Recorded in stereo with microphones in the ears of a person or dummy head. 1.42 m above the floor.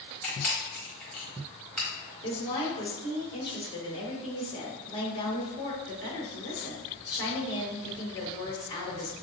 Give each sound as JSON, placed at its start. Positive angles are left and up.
{"t": 0.2, "sound": "a camera shutter", "side_deg": 5, "distance_m": 1.3}
{"t": 2.2, "sound": "a woman speaking", "side_deg": 25, "distance_m": 1.7}